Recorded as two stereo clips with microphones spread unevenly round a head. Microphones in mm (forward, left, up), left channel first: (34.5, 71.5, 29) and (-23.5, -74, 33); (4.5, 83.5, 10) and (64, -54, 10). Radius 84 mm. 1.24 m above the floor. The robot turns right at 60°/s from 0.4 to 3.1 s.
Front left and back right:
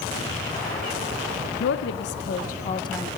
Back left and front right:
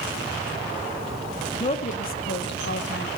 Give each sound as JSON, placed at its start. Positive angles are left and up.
{"t": 1.6, "sound": "a woman speaking", "azimuth_deg": 55, "distance_m": 0.9}